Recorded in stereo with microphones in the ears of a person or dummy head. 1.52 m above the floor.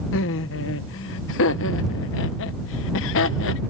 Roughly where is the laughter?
Left.